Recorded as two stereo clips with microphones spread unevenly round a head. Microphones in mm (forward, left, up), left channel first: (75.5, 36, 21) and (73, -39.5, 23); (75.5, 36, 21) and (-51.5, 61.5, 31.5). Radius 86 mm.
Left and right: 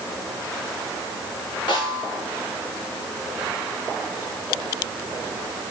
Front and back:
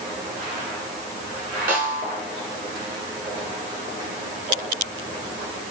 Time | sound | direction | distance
1.7 | a snare drum | 155° left | 4.5 m